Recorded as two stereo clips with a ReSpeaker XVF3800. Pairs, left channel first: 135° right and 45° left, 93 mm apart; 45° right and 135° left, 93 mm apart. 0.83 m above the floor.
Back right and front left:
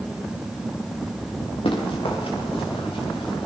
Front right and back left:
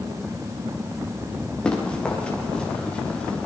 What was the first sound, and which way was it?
Running footsteps, 125° right.